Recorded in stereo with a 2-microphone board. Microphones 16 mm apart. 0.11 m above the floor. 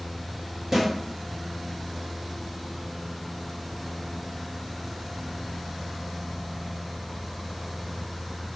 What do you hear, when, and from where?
0.7 s a snare drum: 20° right (ahead or behind), 1.9 m